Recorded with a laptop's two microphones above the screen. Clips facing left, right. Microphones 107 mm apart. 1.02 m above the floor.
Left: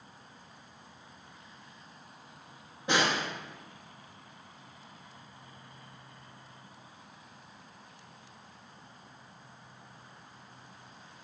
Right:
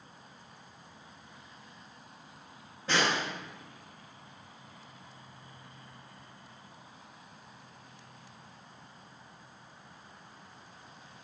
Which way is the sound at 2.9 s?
15° left (ahead or behind).